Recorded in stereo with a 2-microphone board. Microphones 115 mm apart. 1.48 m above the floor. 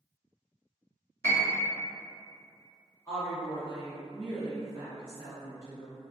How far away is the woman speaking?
About 1.0 m.